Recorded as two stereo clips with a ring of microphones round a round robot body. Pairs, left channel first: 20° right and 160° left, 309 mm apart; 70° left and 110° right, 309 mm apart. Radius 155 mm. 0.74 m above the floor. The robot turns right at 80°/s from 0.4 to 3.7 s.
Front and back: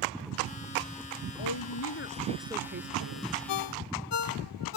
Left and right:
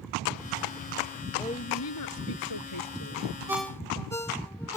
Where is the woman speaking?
15° right; by 3.3 s 140° left.